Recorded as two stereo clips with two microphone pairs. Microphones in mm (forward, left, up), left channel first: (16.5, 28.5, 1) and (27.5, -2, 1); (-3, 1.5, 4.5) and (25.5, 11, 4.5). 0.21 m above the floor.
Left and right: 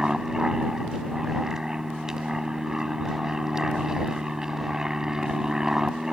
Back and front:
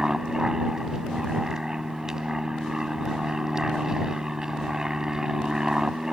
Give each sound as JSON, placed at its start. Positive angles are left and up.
{"t": 0.0, "sound": "an aircraft", "azimuth_deg": -25}